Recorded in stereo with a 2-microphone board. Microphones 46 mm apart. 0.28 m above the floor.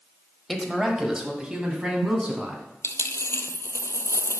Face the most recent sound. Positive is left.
turn(degrees=65)  # may be behind; listen again after turning